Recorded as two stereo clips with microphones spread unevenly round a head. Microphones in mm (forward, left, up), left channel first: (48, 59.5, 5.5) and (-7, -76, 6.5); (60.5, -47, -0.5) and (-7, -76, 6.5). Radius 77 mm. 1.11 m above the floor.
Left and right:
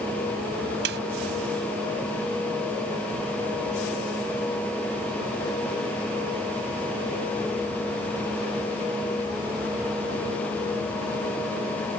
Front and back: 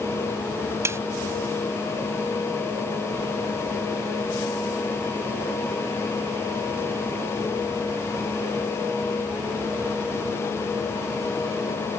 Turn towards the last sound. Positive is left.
turn(degrees=-105)